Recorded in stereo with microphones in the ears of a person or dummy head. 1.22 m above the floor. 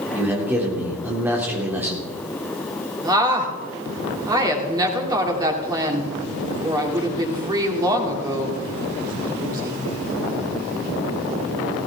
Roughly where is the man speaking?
Centre.